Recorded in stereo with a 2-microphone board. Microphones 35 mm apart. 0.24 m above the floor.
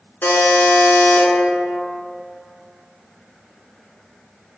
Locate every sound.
0.2 s a buzzer: 75° left (ahead or behind), 0.5 m